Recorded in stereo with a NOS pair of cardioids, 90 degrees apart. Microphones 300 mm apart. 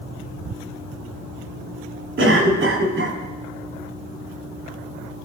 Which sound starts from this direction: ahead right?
A cough, at 2.2 s.